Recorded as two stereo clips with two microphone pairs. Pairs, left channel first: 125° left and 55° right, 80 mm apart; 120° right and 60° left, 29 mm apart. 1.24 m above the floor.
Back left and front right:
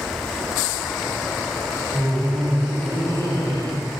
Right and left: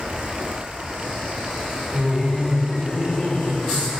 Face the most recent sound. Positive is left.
turn(degrees=-90)